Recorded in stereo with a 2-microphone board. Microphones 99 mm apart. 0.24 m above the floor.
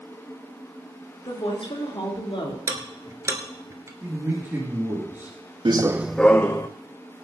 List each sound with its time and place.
1.2 s a woman speaking: 65° left (ahead or behind), 3.5 m
2.7 s ticking: 35° right (ahead or behind), 1.7 m
4.0 s a man speaking: 25° right (ahead or behind), 3.5 m
5.7 s running footsteps: 55° right (ahead or behind), 0.6 m; by 6.7 s 30° left (ahead or behind), 1.1 m